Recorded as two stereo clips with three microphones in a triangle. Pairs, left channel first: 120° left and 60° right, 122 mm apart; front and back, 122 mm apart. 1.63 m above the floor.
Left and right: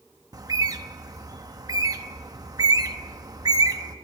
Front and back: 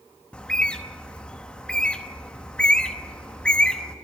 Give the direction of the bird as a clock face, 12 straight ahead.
2 o'clock.